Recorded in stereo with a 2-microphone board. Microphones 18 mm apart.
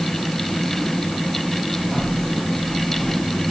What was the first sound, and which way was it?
Only background noise.